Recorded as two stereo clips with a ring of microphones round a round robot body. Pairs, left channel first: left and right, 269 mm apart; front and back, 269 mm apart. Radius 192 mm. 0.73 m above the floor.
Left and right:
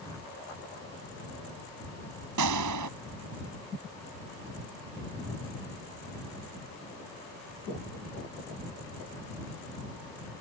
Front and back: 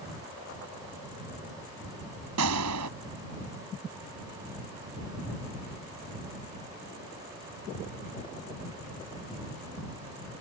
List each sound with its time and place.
2.4 s a gunshot: 130° right